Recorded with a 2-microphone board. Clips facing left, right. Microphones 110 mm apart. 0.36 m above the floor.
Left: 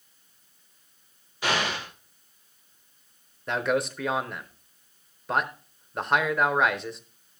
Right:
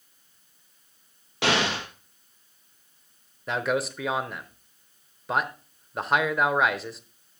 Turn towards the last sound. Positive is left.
turn(degrees=0)  # may be behind; listen again after turning